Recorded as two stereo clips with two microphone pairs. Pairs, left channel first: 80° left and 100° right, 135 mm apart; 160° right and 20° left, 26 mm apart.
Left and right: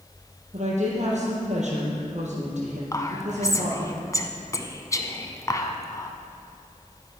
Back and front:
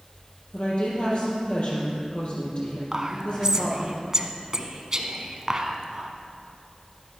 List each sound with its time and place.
0.5 s a woman speaking: 125° right, 4 m
2.9 s whispering: 55° left, 1.2 m